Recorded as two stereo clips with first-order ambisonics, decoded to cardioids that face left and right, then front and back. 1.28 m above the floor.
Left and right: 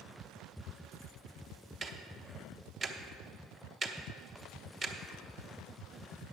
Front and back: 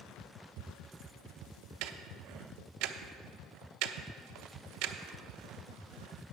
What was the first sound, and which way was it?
Ticking, 160° right.